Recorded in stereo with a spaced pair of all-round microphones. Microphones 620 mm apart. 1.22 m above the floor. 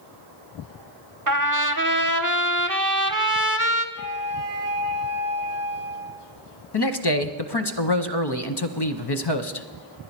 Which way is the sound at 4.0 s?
60° right (ahead or behind).